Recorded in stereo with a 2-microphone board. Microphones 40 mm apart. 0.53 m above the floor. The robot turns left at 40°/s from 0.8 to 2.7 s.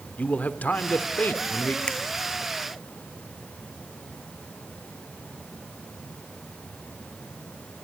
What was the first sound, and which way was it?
A man speaking, 115° left.